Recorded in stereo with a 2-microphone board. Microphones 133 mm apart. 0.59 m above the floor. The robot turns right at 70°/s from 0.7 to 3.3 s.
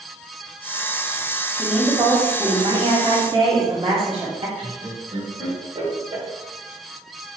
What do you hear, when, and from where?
1.6 s a woman speaking: 175° left, 1.3 m; by 4.5 s 65° right, 1.3 m
4.6 s laughter: 45° right (ahead or behind), 1.5 m